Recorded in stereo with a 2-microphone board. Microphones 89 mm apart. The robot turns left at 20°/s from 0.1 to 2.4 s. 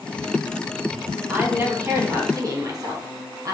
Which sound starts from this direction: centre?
A woman speaking, at 1.3 s.